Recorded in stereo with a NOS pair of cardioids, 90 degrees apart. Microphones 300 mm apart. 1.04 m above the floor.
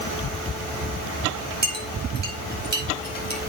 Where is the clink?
35° right, 4.5 m.